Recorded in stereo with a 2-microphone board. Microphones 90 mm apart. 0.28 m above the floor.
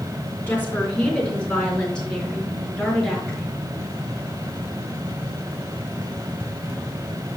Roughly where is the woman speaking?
Centre.